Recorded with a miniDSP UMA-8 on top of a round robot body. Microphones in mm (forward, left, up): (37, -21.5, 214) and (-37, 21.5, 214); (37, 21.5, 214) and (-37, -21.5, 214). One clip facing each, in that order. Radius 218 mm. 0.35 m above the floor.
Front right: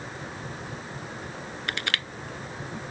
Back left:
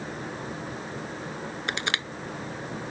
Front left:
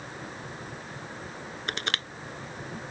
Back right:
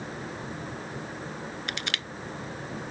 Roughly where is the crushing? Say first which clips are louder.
Back left 1 dB, front left 5 dB; left.